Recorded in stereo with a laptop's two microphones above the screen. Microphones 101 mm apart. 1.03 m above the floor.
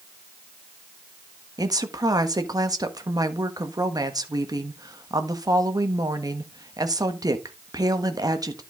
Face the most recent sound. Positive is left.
turn(degrees=-40)  # may be behind; listen again after turning